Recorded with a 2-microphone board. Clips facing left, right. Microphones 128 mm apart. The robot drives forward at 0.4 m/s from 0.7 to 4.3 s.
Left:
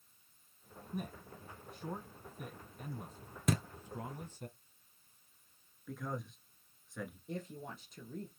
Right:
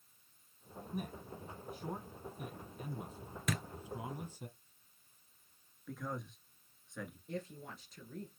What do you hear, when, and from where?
0.9 s a man speaking: 5° right (ahead or behind), 3 m; by 4.5 s 10° right (ahead or behind), 1.8 m
3.5 s a thud: 35° left (ahead or behind), 0.6 m
5.9 s a man speaking: centre (ahead or behind), 1.2 m
7.3 s a woman speaking: 20° left (ahead or behind), 1.6 m